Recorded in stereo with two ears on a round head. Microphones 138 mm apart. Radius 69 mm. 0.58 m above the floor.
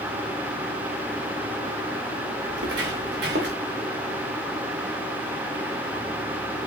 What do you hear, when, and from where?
2.5 s footsteps: 85° right, 4.5 m; by 3.6 s 80° right, 4 m